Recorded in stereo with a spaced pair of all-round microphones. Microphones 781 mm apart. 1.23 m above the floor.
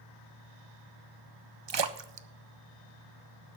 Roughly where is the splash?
Right.